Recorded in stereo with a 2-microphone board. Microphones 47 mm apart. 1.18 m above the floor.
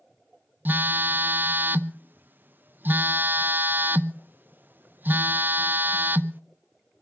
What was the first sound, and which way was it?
A phone buzzing, 40° right (ahead or behind).